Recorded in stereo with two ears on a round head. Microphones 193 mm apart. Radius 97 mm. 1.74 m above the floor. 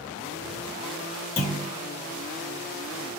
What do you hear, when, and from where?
1.4 s a clunk: 30° left (ahead or behind), 1.6 m